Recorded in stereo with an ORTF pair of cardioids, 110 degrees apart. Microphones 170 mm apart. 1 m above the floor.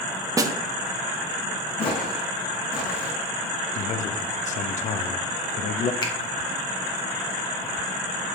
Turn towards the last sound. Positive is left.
turn(degrees=30)